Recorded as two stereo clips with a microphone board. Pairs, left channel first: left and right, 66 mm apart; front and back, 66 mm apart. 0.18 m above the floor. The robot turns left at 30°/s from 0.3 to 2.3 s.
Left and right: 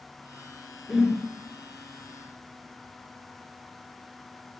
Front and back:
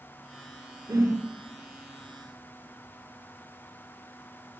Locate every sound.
0.9 s a whoosh: straight behind, 0.6 m; by 1.2 s 175° left, 0.6 m